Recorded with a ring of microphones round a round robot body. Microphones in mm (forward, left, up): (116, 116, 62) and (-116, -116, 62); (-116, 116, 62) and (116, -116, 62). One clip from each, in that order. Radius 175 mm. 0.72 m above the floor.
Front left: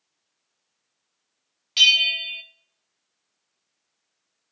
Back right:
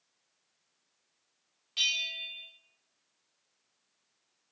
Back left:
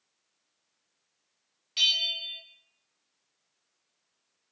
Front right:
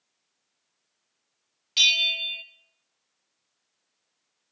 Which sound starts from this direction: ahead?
A bell, at 1.8 s.